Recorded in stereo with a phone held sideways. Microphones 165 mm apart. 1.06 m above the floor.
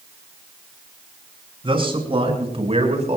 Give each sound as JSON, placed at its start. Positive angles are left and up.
{"t": 1.6, "sound": "a man speaking", "side_deg": -35, "distance_m": 6.0}